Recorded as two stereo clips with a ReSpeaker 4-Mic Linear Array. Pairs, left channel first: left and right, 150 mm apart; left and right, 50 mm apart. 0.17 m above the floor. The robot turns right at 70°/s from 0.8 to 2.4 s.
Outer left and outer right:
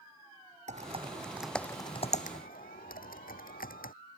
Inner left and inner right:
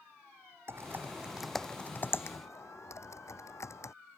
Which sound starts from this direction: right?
Typing on a keyboard, at 0.7 s.